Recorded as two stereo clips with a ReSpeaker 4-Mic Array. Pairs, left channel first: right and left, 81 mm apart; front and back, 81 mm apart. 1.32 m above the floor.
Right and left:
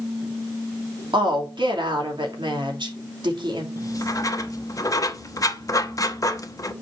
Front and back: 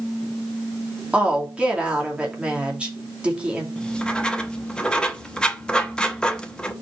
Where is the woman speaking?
105° left, 2.5 m.